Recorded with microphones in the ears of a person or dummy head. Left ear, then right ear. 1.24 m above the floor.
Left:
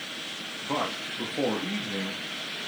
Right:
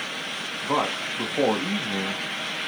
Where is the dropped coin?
No dropped coin in this recording.